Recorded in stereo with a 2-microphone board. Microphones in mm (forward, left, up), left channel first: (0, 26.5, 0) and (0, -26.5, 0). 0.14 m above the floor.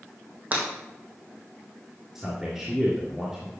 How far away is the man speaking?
About 2.5 m.